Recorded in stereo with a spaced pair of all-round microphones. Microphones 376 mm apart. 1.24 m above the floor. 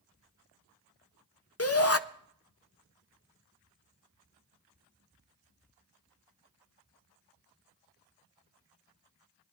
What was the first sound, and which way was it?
A shout, 40° left (ahead or behind).